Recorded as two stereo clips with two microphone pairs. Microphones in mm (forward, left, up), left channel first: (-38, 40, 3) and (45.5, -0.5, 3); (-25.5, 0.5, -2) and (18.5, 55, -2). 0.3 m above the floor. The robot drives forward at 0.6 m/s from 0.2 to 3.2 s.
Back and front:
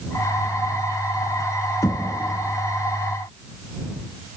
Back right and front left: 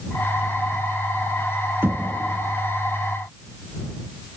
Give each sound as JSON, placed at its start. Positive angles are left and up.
{"t": 1.8, "sound": "knocking", "azimuth_deg": 105, "distance_m": 3.0}